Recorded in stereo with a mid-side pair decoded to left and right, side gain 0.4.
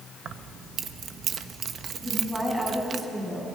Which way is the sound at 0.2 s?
65° right.